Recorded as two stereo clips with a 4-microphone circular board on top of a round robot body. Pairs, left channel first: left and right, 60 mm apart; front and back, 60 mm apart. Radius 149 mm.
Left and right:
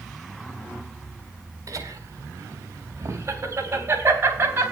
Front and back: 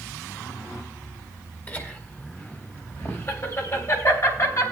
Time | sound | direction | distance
1.7 | laughter | 60° right | 3.5 m